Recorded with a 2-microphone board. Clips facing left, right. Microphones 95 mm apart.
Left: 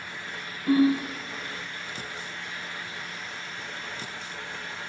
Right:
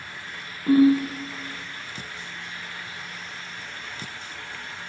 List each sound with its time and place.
0.7 s a ringtone: 40° right (ahead or behind), 1.3 m